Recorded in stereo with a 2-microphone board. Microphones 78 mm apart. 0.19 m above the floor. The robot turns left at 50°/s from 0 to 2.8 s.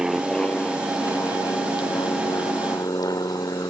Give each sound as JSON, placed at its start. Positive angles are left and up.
{"t": 0.0, "sound": "an aircraft", "side_deg": -5}